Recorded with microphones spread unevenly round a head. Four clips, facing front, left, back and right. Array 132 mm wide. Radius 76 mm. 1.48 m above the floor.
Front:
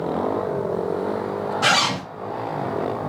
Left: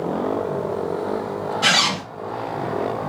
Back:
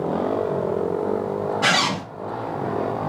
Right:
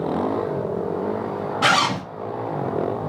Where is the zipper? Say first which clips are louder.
Right 4 dB, front 3 dB; 55° right, 1.8 m.